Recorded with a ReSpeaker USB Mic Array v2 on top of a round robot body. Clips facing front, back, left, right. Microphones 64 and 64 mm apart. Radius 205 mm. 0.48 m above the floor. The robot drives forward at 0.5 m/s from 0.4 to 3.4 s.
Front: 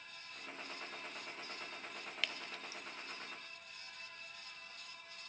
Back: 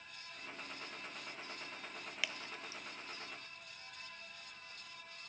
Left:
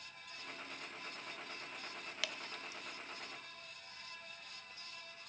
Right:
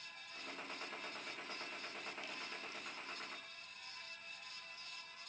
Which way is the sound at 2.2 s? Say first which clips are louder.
Even, left 3 dB; 100° left.